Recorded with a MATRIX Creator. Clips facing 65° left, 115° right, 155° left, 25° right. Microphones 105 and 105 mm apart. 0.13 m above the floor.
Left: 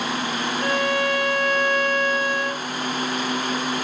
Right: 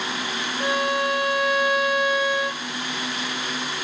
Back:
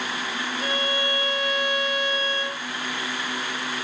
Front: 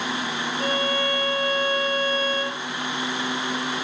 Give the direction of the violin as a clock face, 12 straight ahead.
1 o'clock.